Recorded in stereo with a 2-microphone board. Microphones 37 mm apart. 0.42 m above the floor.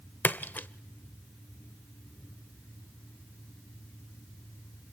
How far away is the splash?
About 0.7 m.